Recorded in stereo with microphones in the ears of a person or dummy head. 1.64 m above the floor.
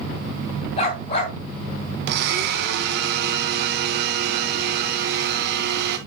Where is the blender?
55° right (ahead or behind), 1.6 m.